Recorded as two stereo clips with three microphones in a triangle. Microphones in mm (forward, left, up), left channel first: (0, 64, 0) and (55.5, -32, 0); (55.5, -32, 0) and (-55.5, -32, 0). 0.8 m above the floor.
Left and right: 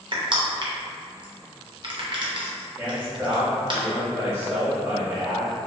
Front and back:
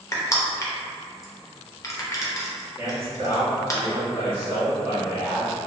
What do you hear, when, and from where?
0.1 s crushing: 50° right, 0.6 m
2.8 s a man speaking: 120° right, 1.7 m